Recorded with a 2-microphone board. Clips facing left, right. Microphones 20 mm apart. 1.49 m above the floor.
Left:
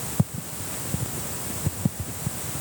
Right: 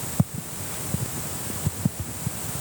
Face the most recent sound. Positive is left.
No sound to turn to.